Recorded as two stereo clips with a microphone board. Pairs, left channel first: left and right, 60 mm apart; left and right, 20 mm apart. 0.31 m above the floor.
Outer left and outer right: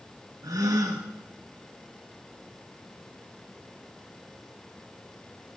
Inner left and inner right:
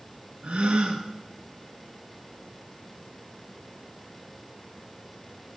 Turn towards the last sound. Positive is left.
turn(degrees=-85)